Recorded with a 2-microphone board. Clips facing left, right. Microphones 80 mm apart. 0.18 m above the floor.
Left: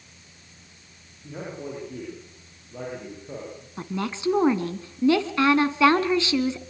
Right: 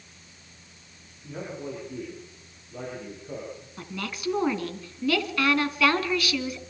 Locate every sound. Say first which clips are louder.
1.2 s a man speaking: left 1 dB; 5° left (ahead or behind), 9 m
3.8 s a woman speaking: left 7 dB; 25° left (ahead or behind), 1.9 m